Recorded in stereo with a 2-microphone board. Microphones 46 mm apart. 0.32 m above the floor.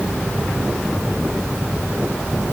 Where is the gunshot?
I don't hear a gunshot.